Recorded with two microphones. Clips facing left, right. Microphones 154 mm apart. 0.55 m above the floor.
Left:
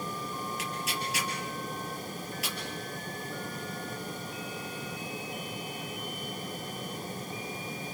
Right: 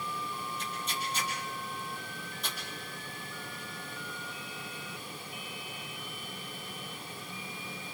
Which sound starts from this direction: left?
Tearing paper, at 0.6 s.